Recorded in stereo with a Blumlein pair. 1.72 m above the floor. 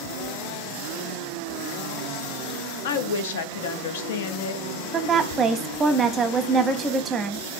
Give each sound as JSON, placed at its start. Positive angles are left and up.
{"t": 2.8, "sound": "a woman speaking", "azimuth_deg": 60, "distance_m": 0.6}
{"t": 4.9, "sound": "a woman speaking", "azimuth_deg": -20, "distance_m": 0.7}